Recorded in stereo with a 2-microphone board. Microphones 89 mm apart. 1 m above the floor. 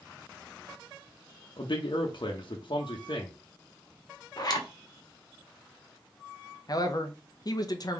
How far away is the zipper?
About 1.0 m.